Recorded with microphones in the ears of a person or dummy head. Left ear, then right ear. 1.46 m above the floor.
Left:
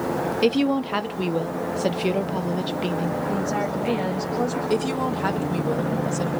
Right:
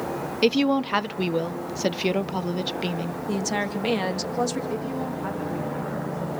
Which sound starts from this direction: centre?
A woman speaking, at 0.4 s.